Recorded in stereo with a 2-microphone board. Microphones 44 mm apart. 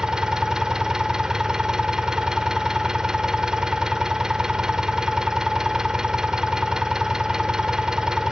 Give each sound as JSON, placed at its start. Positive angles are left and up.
{"t": 0.0, "sound": "an engine running", "side_deg": -15, "distance_m": 1.3}